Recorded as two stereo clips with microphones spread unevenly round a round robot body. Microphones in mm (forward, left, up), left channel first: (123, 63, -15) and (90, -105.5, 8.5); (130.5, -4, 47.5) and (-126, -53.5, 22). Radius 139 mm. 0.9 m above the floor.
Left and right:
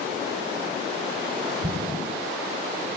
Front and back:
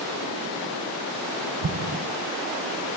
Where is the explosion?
165° right, 0.7 m.